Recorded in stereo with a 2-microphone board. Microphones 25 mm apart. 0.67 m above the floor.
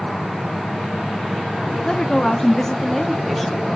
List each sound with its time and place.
1.9 s a woman speaking: 30° left (ahead or behind), 1.1 m; by 3.7 s centre (ahead or behind), 2 m